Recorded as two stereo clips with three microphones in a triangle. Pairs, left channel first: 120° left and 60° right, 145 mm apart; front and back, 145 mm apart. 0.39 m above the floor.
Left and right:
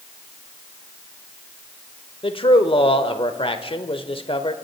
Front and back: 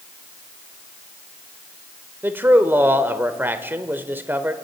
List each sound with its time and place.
2.2 s a man speaking: 115° left, 1.0 m